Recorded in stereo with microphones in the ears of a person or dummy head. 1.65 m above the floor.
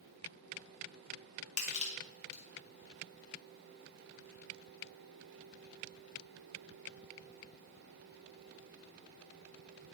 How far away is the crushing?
About 0.8 m.